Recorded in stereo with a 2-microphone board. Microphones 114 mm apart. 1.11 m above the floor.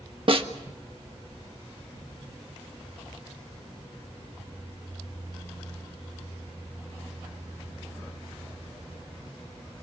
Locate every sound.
0.3 s a snare drum: 50° right (ahead or behind), 1.5 m